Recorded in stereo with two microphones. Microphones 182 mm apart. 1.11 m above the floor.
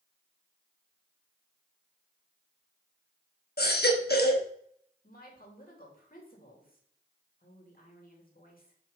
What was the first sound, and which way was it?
A baby crying, 65° left (ahead or behind).